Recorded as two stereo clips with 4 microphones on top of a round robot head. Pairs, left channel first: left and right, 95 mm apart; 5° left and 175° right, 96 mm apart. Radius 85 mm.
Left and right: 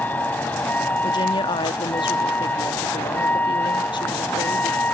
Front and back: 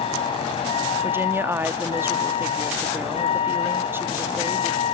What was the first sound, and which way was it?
A vehicle, 20° left.